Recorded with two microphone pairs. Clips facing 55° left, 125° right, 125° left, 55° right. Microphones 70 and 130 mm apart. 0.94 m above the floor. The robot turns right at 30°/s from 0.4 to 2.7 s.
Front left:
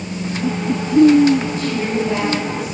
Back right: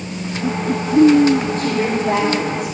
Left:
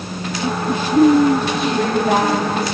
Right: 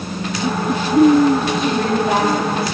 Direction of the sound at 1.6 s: 170° right.